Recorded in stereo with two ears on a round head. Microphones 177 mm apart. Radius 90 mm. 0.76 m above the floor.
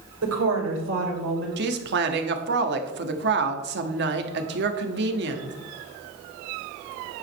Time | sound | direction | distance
0.2 | a woman speaking | 75° right (ahead or behind) | 3.5 m
1.6 | a woman speaking | 50° right (ahead or behind) | 1.3 m